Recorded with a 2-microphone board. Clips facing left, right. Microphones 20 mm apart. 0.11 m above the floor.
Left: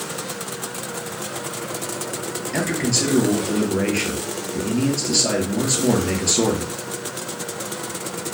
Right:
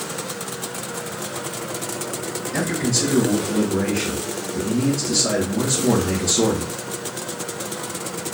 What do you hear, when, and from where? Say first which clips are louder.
2.5 s a man speaking: left 1 dB; 45° left (ahead or behind), 1.7 m